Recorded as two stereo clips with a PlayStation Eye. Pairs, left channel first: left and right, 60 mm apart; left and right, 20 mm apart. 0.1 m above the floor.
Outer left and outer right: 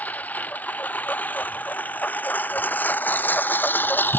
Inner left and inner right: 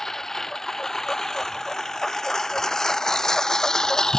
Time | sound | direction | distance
0.0 | a lawn mower | 25° left (ahead or behind) | ?